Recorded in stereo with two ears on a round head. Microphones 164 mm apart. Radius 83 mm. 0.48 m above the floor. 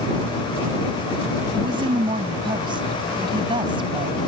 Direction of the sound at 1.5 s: 25° right (ahead or behind).